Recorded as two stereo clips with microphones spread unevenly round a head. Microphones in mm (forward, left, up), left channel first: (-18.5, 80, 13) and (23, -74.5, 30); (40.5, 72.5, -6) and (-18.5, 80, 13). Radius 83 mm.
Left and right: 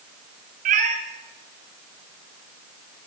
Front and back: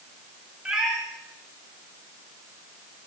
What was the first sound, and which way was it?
A cat meowing, 110° right.